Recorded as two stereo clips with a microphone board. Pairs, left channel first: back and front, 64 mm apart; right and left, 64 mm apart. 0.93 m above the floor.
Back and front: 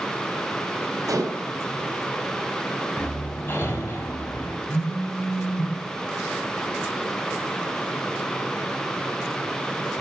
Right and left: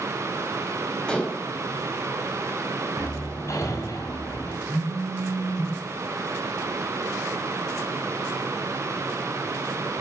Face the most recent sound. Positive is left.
turn(degrees=-125)